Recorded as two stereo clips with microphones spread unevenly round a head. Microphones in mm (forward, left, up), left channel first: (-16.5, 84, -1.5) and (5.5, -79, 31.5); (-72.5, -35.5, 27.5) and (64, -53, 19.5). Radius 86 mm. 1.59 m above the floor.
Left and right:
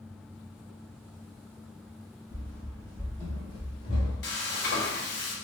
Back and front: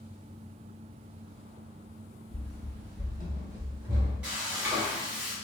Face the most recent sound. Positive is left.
turn(degrees=75)